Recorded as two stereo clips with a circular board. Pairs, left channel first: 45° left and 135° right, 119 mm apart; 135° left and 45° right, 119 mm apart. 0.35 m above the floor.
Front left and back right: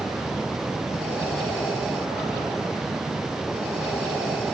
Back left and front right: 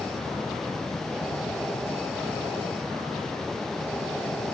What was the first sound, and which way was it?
Only background noise.